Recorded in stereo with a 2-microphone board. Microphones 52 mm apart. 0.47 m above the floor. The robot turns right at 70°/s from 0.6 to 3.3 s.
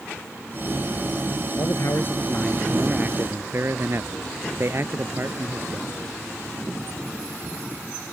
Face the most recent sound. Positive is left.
turn(degrees=-130)